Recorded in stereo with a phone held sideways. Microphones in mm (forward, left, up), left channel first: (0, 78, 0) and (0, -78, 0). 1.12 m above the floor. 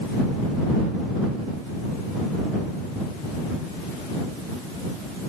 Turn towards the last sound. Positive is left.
No sound to turn to.